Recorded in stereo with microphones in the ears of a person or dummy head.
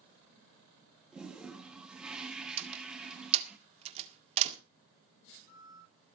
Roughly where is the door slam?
Right.